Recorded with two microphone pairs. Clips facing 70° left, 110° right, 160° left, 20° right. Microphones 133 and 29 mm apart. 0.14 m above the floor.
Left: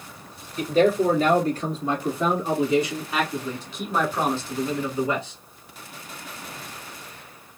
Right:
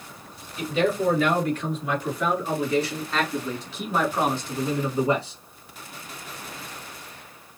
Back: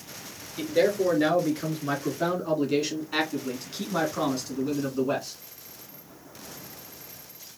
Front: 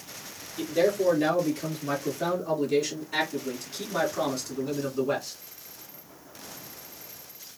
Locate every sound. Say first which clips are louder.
0.6 s a man speaking: left 4 dB, back 1 dB; 105° left, 2.5 m; by 5.4 s 120° right, 1.7 m